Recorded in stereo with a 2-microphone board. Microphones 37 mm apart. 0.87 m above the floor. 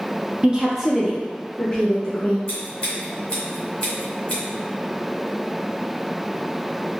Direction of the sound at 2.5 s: 25° left (ahead or behind).